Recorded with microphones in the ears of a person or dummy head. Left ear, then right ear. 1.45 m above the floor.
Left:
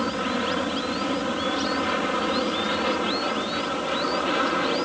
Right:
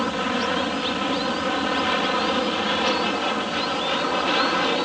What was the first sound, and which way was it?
An aircraft, 15° right (ahead or behind).